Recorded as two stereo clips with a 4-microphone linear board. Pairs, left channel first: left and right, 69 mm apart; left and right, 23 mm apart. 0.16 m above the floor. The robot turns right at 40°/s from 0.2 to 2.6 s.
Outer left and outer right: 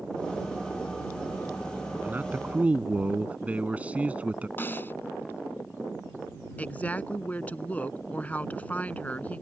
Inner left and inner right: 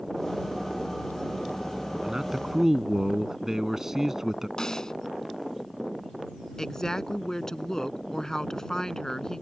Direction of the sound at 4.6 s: 30° left (ahead or behind).